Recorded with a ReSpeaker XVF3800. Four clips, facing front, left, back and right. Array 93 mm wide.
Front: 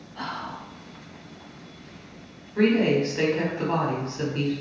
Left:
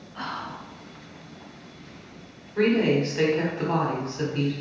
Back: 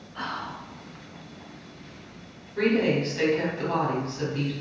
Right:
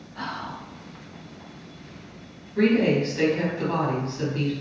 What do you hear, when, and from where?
0.1 s whispering: 140° left, 1.8 m
2.5 s a woman speaking: 45° left, 1.3 m